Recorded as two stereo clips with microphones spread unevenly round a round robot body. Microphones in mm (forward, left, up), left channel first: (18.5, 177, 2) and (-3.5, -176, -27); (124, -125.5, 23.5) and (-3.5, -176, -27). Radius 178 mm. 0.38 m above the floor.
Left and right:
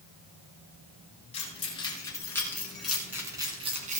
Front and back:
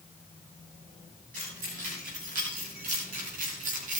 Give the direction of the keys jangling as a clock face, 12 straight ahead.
7 o'clock.